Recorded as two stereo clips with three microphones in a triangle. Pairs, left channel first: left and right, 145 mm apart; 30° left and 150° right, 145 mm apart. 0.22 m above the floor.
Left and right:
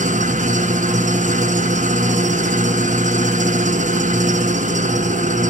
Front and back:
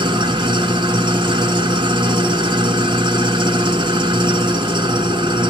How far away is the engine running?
About 2 m.